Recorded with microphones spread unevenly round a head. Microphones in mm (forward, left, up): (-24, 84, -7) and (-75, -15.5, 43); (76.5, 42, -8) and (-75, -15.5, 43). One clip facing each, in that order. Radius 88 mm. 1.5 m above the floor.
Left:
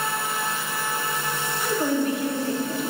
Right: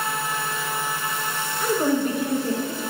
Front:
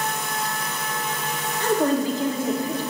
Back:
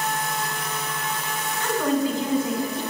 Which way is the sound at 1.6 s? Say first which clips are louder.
Right 2 dB, front 2 dB; 40° right.